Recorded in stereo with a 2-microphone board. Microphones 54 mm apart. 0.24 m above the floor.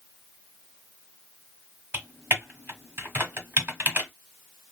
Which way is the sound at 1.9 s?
40° right (ahead or behind).